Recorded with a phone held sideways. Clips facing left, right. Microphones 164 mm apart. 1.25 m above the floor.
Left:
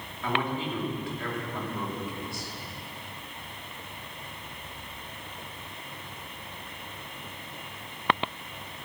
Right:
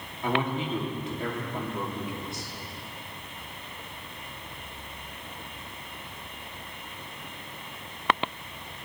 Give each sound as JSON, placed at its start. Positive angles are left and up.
{"t": 0.2, "sound": "a man speaking", "side_deg": -20, "distance_m": 3.0}